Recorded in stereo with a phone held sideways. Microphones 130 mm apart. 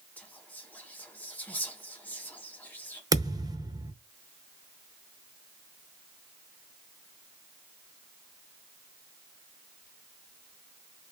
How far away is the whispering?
About 1.2 m.